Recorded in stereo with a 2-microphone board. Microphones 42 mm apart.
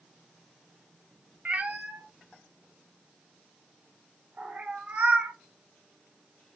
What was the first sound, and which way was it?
A cat meowing, 35° right (ahead or behind).